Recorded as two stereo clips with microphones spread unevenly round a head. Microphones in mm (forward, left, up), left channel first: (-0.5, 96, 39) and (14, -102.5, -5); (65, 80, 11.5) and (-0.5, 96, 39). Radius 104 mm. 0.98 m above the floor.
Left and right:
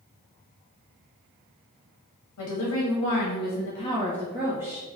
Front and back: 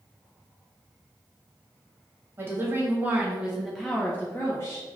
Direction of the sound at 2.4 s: 100° left.